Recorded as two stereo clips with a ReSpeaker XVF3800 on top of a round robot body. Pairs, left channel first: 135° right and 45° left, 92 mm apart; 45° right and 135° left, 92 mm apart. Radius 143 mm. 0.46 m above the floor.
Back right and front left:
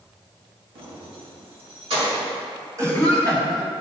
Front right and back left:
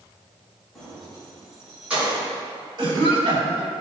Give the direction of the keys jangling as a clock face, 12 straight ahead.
11 o'clock.